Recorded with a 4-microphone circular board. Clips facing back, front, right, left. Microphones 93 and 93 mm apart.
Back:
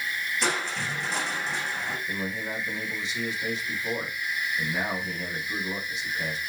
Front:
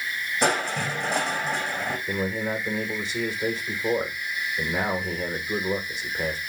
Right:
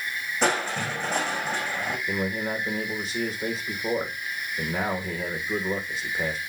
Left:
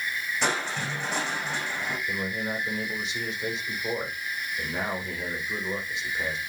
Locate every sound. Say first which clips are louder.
0.4 s crushing: front 7 dB, right 5 dB; 40° right, 6 m
2.1 s a man speaking: front 5 dB, right 3 dB; 40° right, 4 m